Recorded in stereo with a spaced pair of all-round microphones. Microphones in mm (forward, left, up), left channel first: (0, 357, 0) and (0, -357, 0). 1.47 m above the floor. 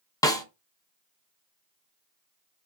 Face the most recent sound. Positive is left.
turn(degrees=5)  # may be behind; listen again after turning